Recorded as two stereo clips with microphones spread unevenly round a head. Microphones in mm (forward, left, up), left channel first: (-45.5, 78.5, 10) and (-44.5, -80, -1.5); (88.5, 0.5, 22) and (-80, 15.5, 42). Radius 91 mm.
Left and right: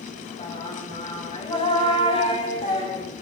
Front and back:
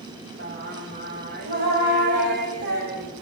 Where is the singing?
145° left, 6.5 m.